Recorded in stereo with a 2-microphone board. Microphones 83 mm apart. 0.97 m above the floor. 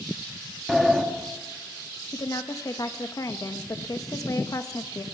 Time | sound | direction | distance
0.7 | a sliding door | centre (ahead or behind) | 2.0 m
2.1 | a woman speaking | 45° left (ahead or behind) | 1.5 m